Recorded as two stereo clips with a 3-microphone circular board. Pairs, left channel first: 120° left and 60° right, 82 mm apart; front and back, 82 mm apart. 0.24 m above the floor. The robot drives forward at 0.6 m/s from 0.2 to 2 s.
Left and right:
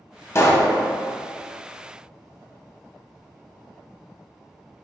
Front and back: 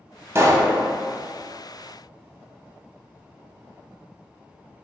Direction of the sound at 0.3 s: 145° left.